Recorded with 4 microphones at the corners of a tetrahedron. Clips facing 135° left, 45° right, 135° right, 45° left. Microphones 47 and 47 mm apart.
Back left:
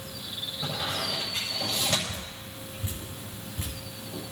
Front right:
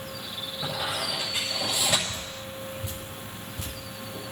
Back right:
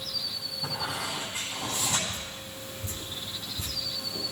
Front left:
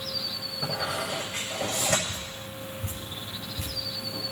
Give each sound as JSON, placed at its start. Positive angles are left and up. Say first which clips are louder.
{"t": 0.6, "sound": "a squeak", "louder": "front right 2 dB, front left 3 dB", "azimuth_deg": 40, "distance_m": 8.0}
{"t": 2.1, "sound": "dripping", "louder": "front right 3 dB, front left 1 dB", "azimuth_deg": 80, "distance_m": 7.5}